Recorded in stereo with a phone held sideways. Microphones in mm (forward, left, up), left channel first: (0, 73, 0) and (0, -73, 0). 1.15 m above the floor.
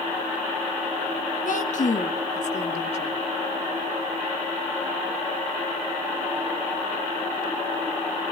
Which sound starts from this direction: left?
A woman speaking, at 1.4 s.